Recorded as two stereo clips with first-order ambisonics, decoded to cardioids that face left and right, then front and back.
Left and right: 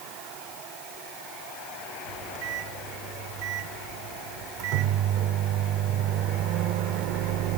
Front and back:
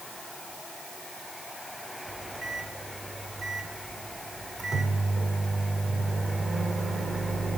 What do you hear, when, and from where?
2.1 s a microwave: 105° right, 1.1 m